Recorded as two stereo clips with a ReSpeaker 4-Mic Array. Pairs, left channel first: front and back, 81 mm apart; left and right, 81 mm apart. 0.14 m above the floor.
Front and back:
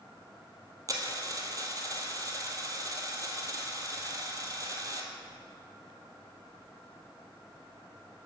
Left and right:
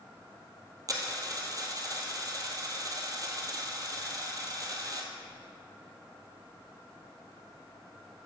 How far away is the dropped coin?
About 1.4 m.